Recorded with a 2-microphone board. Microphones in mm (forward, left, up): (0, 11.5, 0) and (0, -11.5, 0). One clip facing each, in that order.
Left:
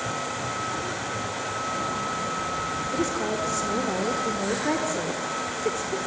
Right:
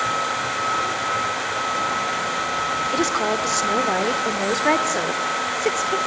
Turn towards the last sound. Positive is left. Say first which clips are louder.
# right 4 dB
turn(degrees=-65)  # may be behind; listen again after turning